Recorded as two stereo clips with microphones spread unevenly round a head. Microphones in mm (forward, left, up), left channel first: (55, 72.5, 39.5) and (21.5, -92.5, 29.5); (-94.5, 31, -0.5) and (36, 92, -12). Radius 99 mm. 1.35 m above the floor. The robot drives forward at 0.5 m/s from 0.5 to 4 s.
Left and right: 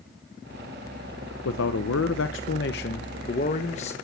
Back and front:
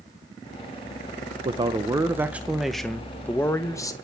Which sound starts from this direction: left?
A man speaking, at 1.4 s.